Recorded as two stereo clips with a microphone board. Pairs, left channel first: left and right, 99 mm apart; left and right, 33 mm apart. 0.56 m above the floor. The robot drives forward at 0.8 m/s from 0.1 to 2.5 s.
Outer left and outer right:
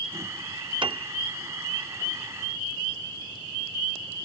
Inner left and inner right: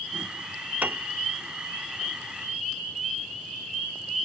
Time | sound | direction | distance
0.8 | a piano | 55° right (ahead or behind) | ?